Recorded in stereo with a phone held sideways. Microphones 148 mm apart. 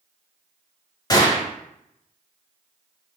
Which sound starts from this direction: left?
A gunshot, at 1.1 s.